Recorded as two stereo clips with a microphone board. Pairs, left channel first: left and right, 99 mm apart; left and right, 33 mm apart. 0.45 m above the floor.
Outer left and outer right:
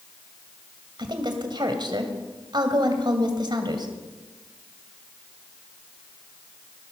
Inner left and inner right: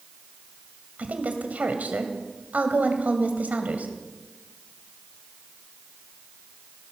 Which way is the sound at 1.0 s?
50° right (ahead or behind).